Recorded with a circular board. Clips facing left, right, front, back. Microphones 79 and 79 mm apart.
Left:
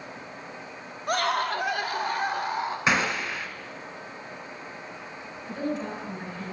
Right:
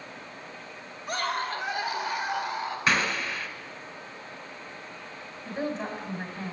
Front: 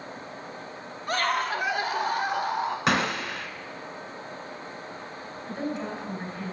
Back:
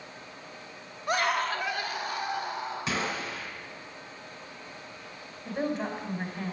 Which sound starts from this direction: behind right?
A woman speaking, at 5.5 s.